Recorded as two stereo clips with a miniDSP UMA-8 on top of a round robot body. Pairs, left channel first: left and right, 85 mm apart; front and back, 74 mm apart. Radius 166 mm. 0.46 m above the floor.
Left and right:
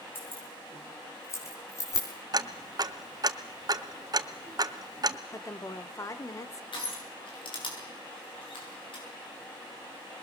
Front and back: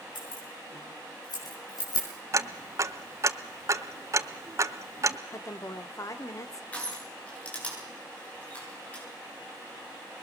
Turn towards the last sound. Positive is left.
turn(degrees=75)